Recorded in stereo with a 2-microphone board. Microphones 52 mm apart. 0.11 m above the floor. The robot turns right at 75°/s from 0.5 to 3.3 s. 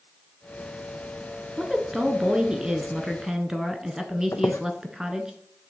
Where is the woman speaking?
5° right (ahead or behind), 1.1 m; by 5.3 s 10° right (ahead or behind), 1.1 m.